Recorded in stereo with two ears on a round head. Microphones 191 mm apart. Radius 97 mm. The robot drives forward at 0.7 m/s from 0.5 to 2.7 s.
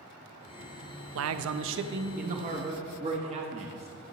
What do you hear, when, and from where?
1.1 s a man speaking: 65° right (ahead or behind), 0.6 m; by 4.1 s 30° right (ahead or behind), 1.0 m